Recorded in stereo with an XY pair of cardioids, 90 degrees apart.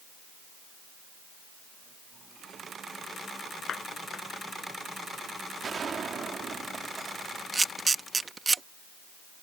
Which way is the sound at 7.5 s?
30° right.